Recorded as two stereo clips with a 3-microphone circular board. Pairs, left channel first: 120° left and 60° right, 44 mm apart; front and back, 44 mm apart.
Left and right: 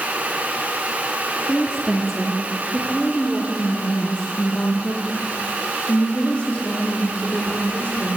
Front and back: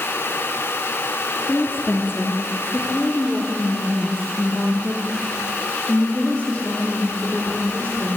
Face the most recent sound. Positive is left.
turn(degrees=65)